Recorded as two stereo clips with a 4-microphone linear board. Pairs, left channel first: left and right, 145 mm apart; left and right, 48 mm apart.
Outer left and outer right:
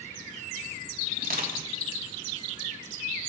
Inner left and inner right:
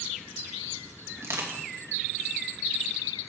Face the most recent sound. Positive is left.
turn(degrees=-75)  # may be behind; listen again after turning